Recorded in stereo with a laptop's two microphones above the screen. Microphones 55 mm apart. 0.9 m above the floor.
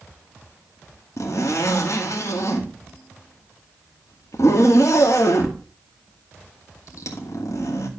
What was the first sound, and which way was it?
A zipper, 70° left (ahead or behind).